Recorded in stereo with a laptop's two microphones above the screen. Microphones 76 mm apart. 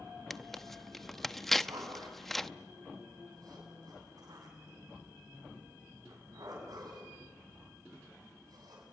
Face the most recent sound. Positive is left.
turn(degrees=-60)  # may be behind; listen again after turning